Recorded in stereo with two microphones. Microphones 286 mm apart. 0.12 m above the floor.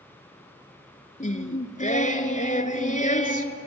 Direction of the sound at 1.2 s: 25° left (ahead or behind).